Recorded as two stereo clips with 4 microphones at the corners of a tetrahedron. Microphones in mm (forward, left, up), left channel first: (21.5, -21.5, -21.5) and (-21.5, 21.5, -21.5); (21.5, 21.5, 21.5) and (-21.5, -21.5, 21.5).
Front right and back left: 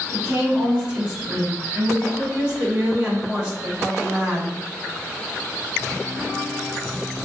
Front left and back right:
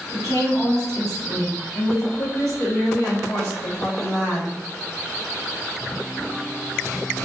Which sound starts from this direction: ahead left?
A woman speaking, at 0.1 s.